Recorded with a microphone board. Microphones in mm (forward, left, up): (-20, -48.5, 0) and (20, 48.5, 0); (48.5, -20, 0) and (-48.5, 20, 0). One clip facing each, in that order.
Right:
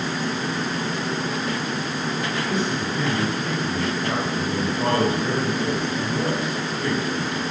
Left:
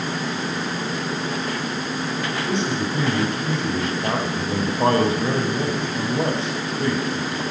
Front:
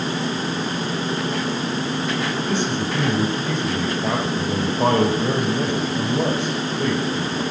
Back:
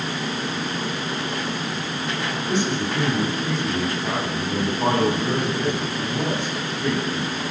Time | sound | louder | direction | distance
2.5 | a man speaking | left 3 dB, front 1 dB | 5° left | 4.5 m